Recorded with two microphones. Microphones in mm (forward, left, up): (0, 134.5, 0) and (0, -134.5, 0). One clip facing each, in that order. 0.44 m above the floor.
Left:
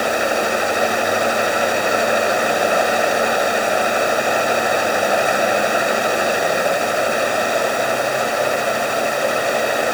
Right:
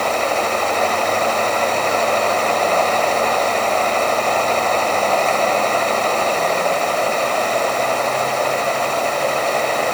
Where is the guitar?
No guitar in this recording.